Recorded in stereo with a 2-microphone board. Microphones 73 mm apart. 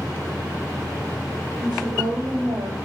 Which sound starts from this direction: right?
A woman speaking, at 1.6 s.